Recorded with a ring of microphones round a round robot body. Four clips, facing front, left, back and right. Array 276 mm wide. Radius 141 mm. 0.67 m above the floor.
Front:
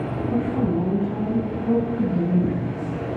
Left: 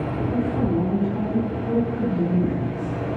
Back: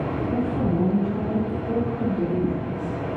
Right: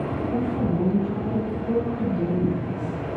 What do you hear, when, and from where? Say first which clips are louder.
0.3 s a woman speaking: left 3 dB, front 3 dB; 5° left, 7 m; by 2.9 s 20° left, 4.5 m